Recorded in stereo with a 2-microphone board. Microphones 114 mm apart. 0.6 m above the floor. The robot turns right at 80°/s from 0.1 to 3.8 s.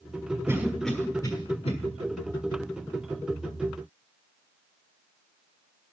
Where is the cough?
25° right (ahead or behind), 1.5 m; by 1.7 s 60° left (ahead or behind), 1.5 m.